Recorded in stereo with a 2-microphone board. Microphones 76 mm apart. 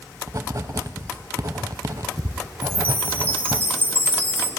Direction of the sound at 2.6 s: 30° right (ahead or behind).